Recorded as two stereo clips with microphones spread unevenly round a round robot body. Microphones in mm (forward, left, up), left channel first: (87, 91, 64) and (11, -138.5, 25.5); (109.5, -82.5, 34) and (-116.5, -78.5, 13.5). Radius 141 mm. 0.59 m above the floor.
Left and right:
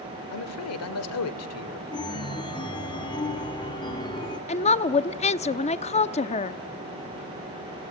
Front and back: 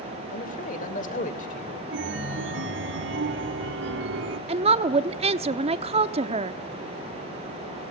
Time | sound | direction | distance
0.3 | a man speaking | 60° left | 2 m
1.9 | a chime | 145° left | 1.3 m
4.5 | a woman speaking | 135° left | 0.8 m